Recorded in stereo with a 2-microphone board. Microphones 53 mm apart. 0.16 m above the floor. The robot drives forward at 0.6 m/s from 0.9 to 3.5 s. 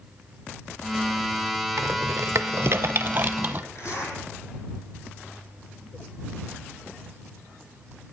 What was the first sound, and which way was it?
A rattle, 70° right (ahead or behind).